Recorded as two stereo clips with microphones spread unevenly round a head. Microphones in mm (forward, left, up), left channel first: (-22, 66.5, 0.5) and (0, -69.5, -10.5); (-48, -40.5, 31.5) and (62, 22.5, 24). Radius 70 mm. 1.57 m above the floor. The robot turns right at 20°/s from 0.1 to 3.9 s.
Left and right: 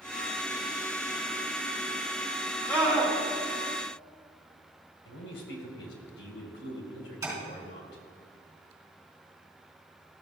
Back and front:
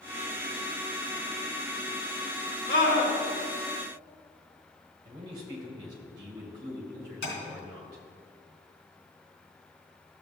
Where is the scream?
Straight behind, 3 m; by 3.1 s 175° right, 3 m.